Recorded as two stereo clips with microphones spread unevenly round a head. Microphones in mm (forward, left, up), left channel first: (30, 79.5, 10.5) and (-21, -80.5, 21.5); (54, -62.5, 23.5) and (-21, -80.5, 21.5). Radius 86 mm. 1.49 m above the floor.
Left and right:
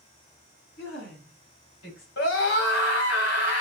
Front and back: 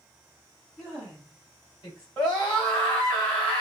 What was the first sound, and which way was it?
A woman speaking, 105° left.